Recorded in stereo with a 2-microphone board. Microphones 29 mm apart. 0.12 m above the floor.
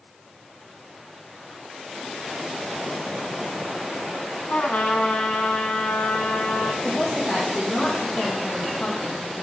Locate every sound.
4.5 s a trumpet: 60° left (ahead or behind), 1.7 m
6.8 s a woman speaking: 45° left (ahead or behind), 4 m